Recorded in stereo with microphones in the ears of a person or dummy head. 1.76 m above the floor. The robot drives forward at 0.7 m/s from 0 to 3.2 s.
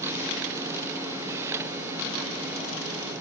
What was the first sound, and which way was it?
Only background noise.